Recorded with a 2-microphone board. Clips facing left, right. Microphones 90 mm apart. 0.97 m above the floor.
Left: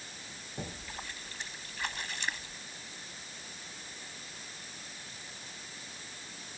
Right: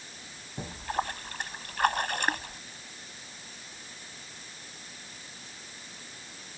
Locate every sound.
0.6 s a splash: 55° right (ahead or behind)